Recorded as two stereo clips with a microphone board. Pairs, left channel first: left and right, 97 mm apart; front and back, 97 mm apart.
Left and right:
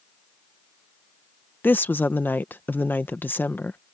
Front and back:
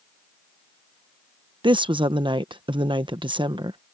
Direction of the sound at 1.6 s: 155° left.